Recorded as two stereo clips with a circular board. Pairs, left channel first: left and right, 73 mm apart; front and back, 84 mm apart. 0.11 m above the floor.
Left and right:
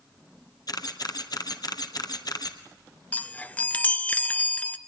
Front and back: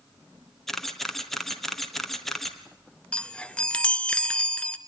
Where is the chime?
55° left, 0.8 m.